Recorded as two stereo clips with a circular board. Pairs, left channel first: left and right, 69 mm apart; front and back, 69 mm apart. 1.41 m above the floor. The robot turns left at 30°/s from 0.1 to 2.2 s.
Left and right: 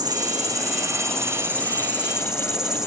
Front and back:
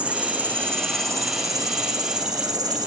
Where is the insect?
110° right, 3 m; by 2.9 s 170° right, 3 m.